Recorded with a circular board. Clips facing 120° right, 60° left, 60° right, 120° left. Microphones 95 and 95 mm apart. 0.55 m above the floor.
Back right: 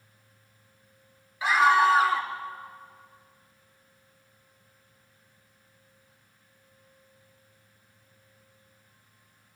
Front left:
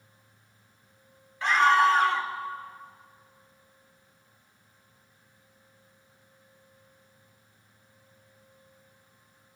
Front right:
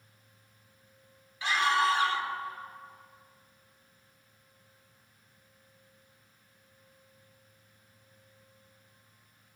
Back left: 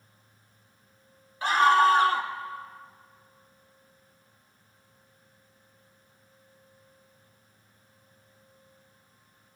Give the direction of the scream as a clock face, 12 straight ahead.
7 o'clock.